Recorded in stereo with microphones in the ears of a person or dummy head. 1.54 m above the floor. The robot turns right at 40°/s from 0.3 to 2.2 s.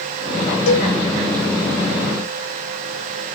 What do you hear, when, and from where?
0.7 s a cowbell: 70° left (ahead or behind), 5 m; by 0.9 s 60° left (ahead or behind), 5 m